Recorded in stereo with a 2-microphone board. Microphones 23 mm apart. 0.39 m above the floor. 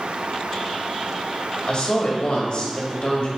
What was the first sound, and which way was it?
A woman speaking, 50° left (ahead or behind).